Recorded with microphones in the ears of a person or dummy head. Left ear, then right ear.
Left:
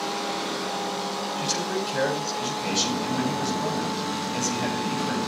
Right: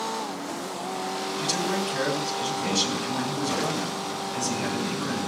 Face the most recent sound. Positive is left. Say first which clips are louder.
# right 2 dB
turn(degrees=5)  # may be behind; listen again after turning